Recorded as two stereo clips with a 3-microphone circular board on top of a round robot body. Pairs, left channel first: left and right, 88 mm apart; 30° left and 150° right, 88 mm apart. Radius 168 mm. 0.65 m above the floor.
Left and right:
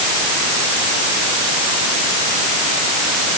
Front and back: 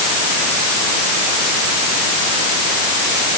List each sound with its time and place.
Only background noise.